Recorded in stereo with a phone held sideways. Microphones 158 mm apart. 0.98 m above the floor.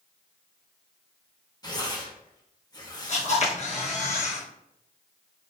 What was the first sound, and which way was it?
Tearing paper, 25° left (ahead or behind).